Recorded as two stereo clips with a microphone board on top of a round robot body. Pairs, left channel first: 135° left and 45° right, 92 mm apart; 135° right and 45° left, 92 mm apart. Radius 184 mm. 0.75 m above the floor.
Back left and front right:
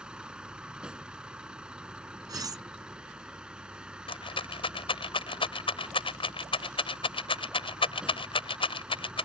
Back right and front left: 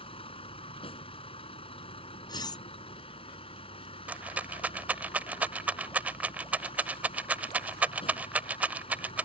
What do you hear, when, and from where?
0.0 s a vehicle: 125° right
2.3 s cutlery clinking: 95° right
4.1 s a rattle: 120° left